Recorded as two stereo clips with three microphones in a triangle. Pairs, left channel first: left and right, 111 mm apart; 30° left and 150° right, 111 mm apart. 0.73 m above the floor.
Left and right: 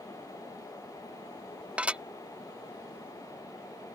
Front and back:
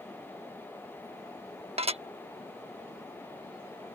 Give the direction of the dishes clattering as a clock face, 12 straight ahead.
6 o'clock.